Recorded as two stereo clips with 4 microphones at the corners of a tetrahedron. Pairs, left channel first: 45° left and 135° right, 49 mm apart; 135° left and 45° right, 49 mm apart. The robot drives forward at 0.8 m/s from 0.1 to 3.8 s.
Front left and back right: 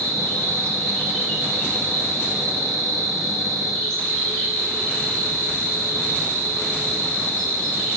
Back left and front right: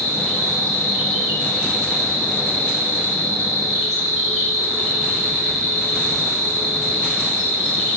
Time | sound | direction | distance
0.0 | an insect | 115° right | 7.5 m